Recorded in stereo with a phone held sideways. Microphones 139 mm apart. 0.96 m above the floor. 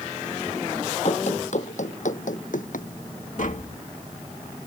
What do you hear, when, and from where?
1.1 s running footsteps: 55° left (ahead or behind); by 2.9 s 70° left (ahead or behind)
3.4 s tapping: 65° left (ahead or behind)